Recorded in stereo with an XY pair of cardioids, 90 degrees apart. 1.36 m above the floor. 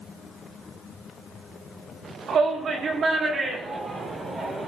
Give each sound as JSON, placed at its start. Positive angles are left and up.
{"t": 2.3, "sound": "a shout", "azimuth_deg": -65, "distance_m": 2.5}